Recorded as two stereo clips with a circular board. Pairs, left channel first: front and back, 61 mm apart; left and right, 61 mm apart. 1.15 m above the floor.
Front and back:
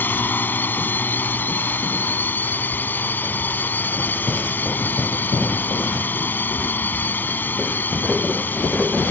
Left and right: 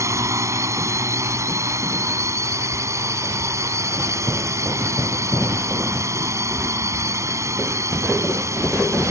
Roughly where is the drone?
Ahead right.